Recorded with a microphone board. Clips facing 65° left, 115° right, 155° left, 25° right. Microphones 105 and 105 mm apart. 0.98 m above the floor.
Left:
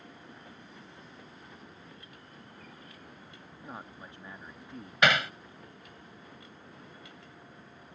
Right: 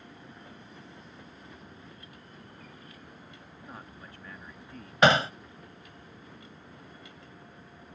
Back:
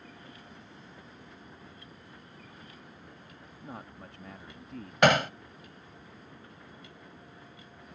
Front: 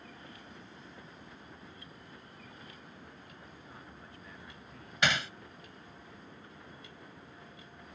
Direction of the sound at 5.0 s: 170° right.